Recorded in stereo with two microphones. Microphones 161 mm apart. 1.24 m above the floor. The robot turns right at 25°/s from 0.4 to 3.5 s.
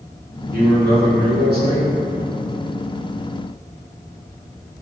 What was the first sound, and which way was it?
A man speaking, 115° right.